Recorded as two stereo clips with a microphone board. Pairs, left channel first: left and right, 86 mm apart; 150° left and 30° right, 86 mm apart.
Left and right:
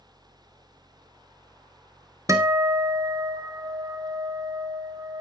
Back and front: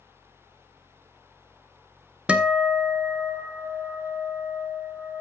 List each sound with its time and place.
2.3 s a guitar: 100° right, 1.0 m